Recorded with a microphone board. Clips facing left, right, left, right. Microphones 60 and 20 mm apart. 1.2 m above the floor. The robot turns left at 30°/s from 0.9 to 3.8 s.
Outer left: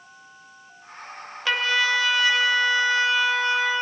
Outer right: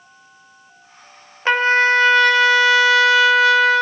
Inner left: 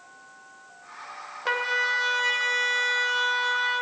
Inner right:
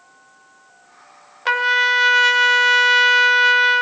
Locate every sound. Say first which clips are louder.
1.4 s a trumpet: outer right 8 dB, inner right 9 dB; 35° right, 0.6 m; by 3.8 s 105° right, 0.6 m